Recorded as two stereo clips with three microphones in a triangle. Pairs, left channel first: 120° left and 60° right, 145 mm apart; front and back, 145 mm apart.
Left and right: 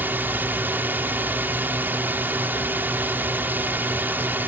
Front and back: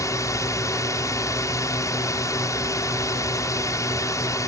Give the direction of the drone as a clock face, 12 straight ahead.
12 o'clock.